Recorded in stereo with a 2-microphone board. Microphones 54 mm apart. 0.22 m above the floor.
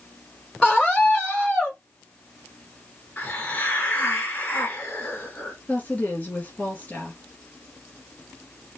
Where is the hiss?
30° left (ahead or behind), 2.5 m.